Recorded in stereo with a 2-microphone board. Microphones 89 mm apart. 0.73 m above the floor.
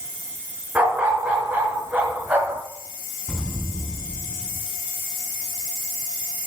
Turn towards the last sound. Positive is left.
turn(degrees=10)  # may be behind; listen again after turning